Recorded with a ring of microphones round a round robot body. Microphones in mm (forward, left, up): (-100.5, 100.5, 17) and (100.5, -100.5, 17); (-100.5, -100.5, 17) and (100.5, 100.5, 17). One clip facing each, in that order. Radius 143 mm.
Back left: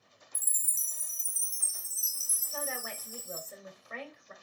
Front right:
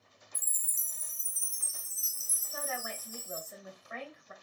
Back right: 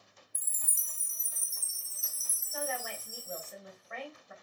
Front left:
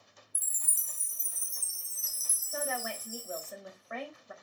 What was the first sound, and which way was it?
A chime, 130° left.